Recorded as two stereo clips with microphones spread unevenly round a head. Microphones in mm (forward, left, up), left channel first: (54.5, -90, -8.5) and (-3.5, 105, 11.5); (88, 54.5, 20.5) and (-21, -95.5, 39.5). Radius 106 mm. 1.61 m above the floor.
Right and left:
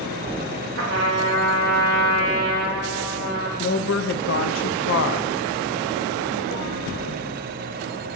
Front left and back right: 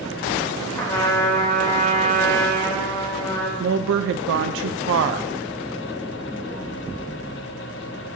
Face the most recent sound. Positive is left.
turn(degrees=-110)